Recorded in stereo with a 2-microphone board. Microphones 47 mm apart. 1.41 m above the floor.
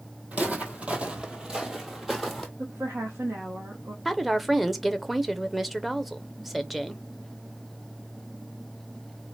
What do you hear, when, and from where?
0.3 s footsteps: 35° right (ahead or behind), 1.7 m; by 2.5 s centre (ahead or behind), 1.6 m
2.6 s a woman speaking: 65° right (ahead or behind), 1.4 m
4.0 s a woman speaking: centre (ahead or behind), 0.6 m